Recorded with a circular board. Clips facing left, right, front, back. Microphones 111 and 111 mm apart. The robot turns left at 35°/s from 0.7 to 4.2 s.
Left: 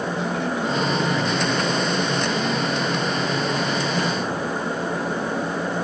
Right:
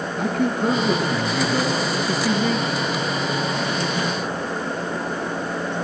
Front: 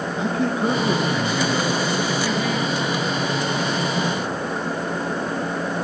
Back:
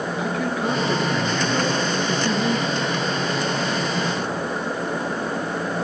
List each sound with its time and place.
0.2 s a man speaking: 55° right, 3.5 m; by 2.8 s 130° right, 3.5 m